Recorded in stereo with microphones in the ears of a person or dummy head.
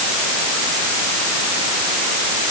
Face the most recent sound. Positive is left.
No sound to turn to.